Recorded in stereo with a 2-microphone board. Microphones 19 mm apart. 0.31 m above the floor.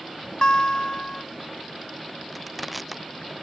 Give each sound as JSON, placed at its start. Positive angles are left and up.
{"t": 0.4, "sound": "a guitar", "side_deg": 55}
{"t": 2.3, "sound": "crushing", "side_deg": 5}